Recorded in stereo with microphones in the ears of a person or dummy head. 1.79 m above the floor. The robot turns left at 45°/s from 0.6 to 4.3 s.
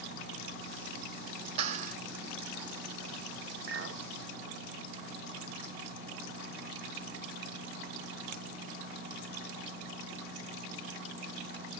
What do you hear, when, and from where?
1.6 s a clap: 40° right (ahead or behind), 3.5 m; by 2.0 s 55° right (ahead or behind), 3.5 m
3.7 s a clink: 60° right (ahead or behind), 1.7 m; by 4.0 s 65° right (ahead or behind), 1.7 m